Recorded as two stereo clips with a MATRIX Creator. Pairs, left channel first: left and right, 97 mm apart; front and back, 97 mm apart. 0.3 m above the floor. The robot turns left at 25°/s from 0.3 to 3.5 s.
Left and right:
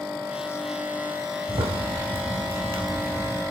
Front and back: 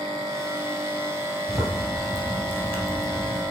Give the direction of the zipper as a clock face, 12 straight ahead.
3 o'clock.